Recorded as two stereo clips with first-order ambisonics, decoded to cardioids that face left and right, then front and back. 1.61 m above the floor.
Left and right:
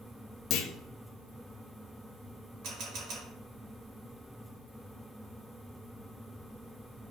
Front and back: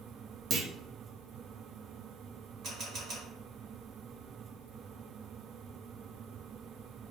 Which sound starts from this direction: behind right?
A camera shutter, at 2.6 s.